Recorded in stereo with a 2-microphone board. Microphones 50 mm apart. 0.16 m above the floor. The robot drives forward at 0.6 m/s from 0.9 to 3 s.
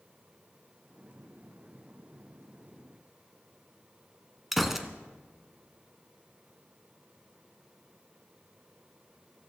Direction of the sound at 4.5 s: 5° right (ahead or behind).